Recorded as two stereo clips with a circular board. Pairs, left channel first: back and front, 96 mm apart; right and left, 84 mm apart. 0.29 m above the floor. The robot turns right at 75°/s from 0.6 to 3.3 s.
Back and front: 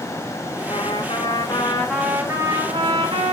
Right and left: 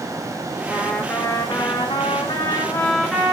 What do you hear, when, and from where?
0.7 s a trumpet: 170° left, 4 m; by 3.3 s 5° left, 4 m